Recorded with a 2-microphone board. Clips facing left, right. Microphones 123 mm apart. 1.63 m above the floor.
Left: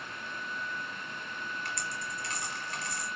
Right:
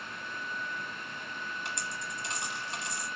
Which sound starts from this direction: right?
A dropped coin, at 1.6 s.